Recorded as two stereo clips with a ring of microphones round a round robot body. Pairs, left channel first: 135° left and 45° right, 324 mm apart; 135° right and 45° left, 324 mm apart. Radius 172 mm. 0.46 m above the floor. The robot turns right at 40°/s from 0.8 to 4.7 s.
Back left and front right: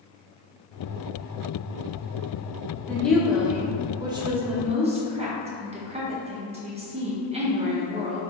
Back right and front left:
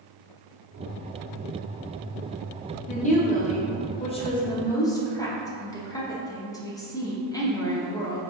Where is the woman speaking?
150° right, 0.7 m; by 8.2 s 75° right, 0.7 m.